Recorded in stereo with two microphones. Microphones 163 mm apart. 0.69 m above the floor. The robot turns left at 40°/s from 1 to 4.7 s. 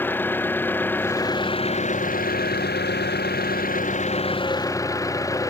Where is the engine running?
170° left; by 5.5 s 20° left.